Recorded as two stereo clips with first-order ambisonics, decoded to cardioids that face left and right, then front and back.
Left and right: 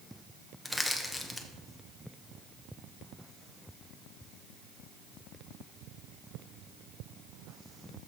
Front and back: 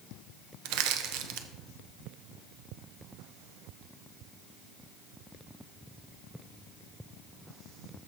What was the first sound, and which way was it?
Crushing, 175° left.